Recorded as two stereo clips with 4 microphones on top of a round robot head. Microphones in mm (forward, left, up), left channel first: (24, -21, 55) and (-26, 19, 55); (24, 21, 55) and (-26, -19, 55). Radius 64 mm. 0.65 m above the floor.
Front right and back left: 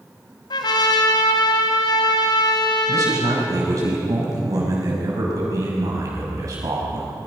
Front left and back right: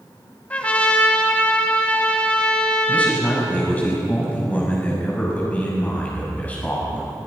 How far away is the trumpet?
About 2 m.